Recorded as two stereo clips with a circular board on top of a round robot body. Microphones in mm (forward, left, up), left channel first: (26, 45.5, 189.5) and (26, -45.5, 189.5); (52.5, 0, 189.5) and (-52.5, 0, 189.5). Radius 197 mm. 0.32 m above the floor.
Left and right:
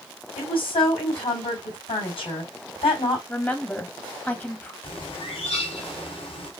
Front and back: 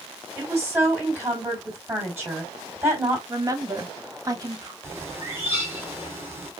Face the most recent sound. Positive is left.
turn(degrees=110)